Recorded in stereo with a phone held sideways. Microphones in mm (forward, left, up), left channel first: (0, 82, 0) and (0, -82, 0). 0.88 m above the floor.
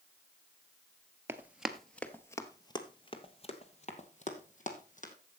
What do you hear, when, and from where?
1.3 s running footsteps: 15° right (ahead or behind), 0.9 m; by 5.1 s 50° left (ahead or behind), 2 m